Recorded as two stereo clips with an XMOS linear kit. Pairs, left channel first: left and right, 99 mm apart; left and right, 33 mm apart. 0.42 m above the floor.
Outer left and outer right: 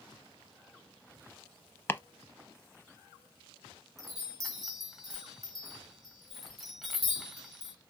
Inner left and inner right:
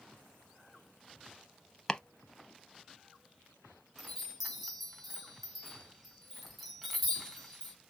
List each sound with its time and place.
1.9 s chopping: 25° left (ahead or behind), 0.5 m
4.0 s a chime: centre (ahead or behind), 1.7 m